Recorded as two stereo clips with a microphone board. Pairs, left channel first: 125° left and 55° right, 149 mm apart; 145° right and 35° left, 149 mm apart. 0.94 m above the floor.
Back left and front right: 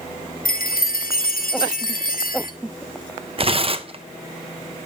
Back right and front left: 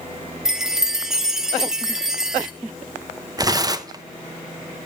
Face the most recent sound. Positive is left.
turn(degrees=-20)